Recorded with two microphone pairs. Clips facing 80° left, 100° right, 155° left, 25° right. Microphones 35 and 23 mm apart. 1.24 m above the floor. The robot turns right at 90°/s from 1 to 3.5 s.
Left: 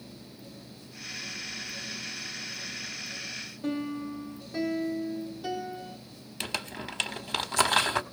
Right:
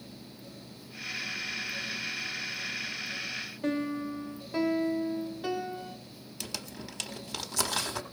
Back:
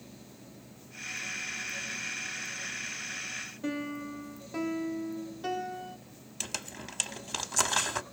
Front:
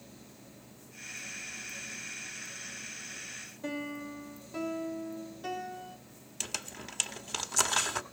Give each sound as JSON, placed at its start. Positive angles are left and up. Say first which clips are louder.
{"t": 3.6, "sound": "a piano", "louder": "right 1 dB, back 1 dB", "azimuth_deg": -130, "distance_m": 1.7}
{"t": 6.4, "sound": "crumpling", "louder": "left 6 dB, back 1 dB", "azimuth_deg": 65, "distance_m": 0.9}